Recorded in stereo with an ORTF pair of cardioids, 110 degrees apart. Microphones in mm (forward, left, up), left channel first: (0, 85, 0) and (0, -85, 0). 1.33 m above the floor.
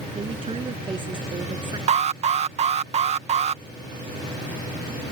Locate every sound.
0.1 s a woman speaking: 35° right; by 1.8 s 25° right
1.9 s an alarm: 40° right